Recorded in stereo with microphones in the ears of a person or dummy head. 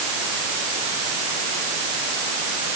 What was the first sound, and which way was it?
Only background noise.